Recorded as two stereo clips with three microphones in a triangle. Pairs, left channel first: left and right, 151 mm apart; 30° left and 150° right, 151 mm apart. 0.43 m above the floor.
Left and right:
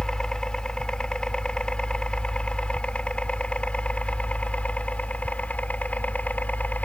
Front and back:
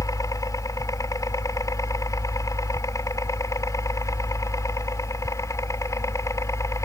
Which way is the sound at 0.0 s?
10° left.